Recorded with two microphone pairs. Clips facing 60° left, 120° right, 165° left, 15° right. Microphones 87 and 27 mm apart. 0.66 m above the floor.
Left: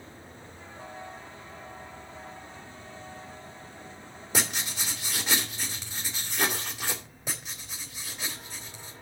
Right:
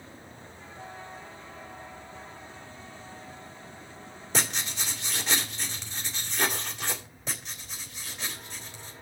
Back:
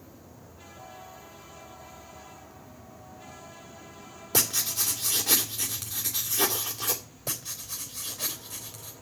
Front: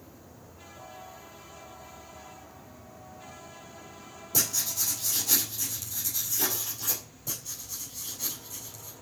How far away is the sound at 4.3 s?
About 2.5 m.